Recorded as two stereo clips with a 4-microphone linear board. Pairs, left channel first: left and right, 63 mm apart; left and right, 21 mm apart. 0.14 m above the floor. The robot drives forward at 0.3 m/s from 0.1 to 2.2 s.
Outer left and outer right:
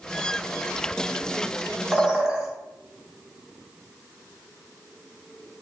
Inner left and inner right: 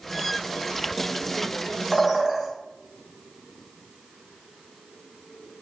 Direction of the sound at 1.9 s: 15° right (ahead or behind).